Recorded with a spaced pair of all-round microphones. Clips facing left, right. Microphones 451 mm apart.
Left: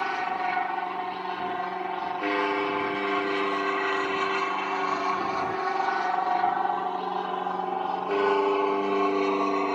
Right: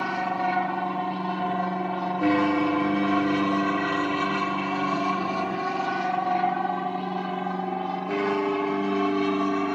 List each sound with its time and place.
0.0 s an aircraft: 60° right (ahead or behind); by 9.8 s 30° right (ahead or behind)